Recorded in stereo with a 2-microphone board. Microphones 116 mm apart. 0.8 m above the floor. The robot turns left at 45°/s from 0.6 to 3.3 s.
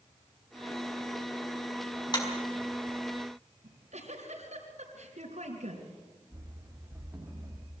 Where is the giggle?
80° right, 4 m.